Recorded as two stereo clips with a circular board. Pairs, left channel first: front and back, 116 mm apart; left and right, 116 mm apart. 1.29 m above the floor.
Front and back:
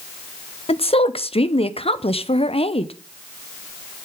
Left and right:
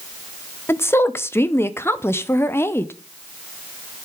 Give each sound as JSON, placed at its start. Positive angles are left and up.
{"t": 0.7, "sound": "a woman speaking", "azimuth_deg": 25, "distance_m": 0.9}